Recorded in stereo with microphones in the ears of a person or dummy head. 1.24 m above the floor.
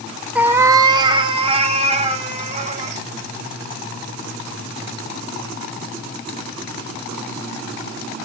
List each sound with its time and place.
0.3 s a cat meowing: centre (ahead or behind), 0.7 m; by 3.0 s 35° right (ahead or behind), 3 m